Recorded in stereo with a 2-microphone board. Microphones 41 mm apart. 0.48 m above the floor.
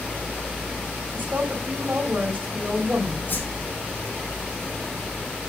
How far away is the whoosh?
About 3 m.